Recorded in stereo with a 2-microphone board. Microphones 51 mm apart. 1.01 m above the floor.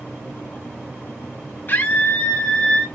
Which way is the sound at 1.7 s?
40° left (ahead or behind).